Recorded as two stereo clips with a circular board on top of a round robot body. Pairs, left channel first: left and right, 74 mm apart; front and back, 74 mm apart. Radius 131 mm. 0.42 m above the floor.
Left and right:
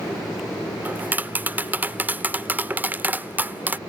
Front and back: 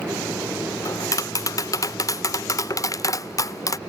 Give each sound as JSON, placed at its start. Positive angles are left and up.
{"t": 0.8, "sound": "tapping", "azimuth_deg": -30}